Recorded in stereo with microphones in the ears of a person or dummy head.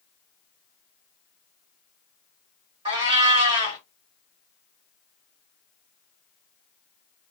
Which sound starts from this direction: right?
A cat meowing, at 2.9 s.